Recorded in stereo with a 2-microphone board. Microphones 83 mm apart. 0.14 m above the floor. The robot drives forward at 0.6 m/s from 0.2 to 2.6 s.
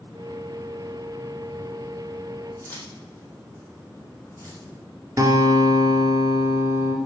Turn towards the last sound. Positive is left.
turn(degrees=-40)  # may be behind; listen again after turning